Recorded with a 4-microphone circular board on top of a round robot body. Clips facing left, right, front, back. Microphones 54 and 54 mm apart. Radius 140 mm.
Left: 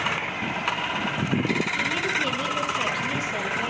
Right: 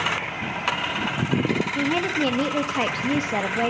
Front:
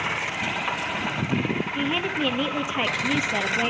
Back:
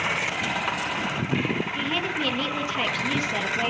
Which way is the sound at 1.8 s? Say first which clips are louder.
Right 2 dB, front 2 dB; 75° right.